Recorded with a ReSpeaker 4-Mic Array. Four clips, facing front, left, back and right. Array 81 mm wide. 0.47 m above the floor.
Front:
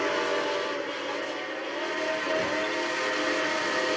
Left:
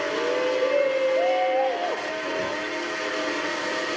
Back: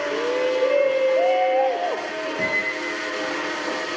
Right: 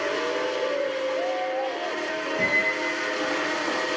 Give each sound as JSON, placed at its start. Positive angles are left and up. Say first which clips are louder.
{"t": 0.1, "sound": "a shout", "louder": "left 3 dB, back 6 dB", "azimuth_deg": 160}
{"t": 2.4, "sound": "a squeak", "louder": "right 3 dB, back 2 dB", "azimuth_deg": -125}